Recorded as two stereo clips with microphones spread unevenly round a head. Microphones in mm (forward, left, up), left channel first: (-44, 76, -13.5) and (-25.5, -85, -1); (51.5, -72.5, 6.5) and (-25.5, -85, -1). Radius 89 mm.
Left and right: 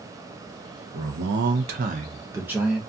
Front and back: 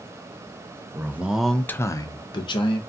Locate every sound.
0.9 s a man speaking: 105° right, 0.7 m; by 2.8 s 5° left, 0.8 m